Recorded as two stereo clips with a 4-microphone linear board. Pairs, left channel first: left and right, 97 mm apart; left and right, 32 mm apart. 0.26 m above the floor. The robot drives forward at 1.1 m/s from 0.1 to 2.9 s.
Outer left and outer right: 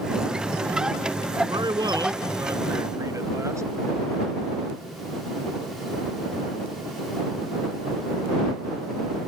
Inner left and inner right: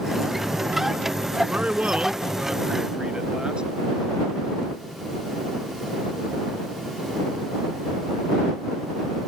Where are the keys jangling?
No keys jangling in this recording.